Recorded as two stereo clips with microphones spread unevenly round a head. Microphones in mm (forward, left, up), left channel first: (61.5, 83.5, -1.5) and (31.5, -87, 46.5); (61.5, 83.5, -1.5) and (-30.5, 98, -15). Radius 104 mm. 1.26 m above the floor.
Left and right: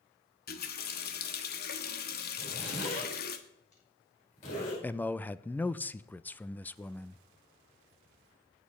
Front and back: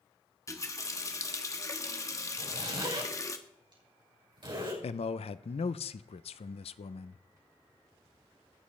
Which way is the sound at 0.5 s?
45° left.